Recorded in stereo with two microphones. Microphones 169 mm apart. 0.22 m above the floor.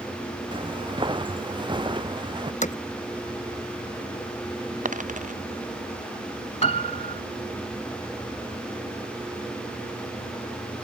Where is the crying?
No crying in this recording.